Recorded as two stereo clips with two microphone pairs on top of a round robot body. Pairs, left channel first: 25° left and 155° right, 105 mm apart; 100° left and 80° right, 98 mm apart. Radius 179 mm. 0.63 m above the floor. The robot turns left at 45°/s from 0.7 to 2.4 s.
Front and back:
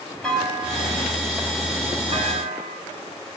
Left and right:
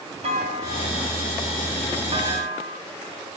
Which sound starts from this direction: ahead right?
A clunk, at 0.2 s.